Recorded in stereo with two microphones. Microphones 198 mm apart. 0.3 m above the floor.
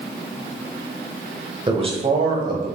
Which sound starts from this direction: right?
A man speaking, at 1.7 s.